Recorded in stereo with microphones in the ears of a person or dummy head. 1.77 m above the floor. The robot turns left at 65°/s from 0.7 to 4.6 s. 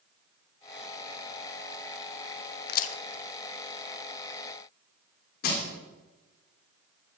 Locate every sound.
2.7 s a crack: 60° left (ahead or behind), 0.8 m; by 2.9 s 40° left (ahead or behind), 0.8 m
5.4 s crushing: 55° left (ahead or behind), 3 m